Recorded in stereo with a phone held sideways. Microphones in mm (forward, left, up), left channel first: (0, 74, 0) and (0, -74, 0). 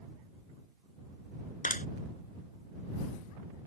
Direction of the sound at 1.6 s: 65° left (ahead or behind).